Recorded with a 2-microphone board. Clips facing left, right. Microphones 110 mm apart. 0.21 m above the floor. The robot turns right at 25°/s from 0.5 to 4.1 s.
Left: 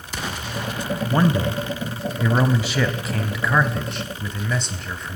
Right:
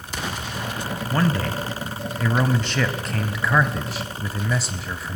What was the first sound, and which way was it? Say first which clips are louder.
A man speaking: left 3 dB; 20° left (ahead or behind).